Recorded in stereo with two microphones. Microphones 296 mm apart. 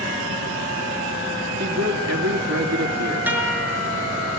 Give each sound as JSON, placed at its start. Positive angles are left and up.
{"t": 1.6, "sound": "a man speaking", "side_deg": -60, "distance_m": 2.5}
{"t": 3.3, "sound": "a guitar", "side_deg": -5, "distance_m": 6.0}